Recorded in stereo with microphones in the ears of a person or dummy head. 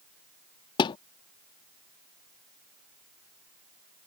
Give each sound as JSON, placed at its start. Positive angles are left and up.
{"t": 0.8, "sound": "a thud", "side_deg": 25}